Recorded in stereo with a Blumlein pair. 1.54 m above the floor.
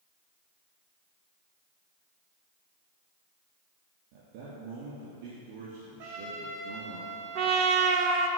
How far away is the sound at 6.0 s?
About 1.5 m.